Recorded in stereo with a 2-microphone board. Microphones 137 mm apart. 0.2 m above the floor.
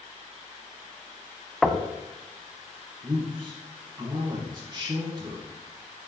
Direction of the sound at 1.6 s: Centre (ahead or behind).